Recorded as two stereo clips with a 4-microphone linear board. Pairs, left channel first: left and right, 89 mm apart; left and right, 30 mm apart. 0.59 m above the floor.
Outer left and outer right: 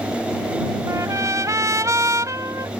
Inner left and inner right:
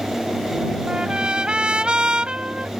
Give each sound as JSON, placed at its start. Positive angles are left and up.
{"t": 0.9, "sound": "a trumpet", "side_deg": -35}